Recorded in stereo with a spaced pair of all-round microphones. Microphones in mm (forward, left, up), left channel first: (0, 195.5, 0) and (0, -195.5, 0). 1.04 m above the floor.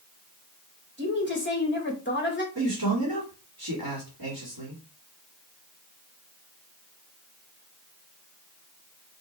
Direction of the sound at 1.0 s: 25° left (ahead or behind).